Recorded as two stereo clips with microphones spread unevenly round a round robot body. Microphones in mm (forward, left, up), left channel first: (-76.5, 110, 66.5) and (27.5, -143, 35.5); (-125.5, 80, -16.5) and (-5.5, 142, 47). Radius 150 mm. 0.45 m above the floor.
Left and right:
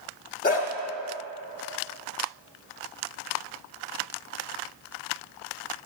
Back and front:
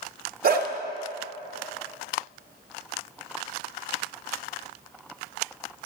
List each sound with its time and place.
0.4 s a dog barking: 50° left, 0.8 m